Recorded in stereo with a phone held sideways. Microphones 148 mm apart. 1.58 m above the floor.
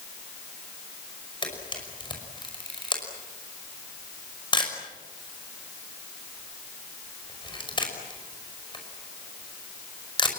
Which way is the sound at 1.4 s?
35° left (ahead or behind).